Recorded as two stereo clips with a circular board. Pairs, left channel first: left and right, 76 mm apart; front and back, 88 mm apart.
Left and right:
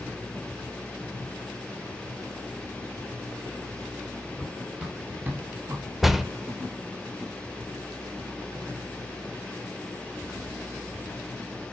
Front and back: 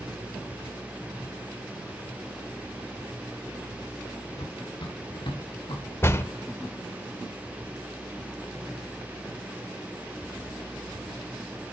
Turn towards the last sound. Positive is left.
turn(degrees=-5)